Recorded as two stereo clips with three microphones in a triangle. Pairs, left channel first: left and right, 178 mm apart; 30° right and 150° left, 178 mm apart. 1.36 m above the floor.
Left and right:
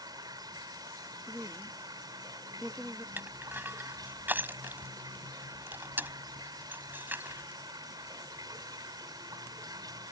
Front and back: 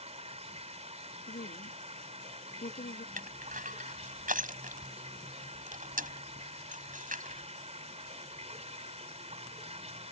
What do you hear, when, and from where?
0.0 s running water: 155° right
1.3 s a woman speaking: 5° right
3.2 s crushing: 170° right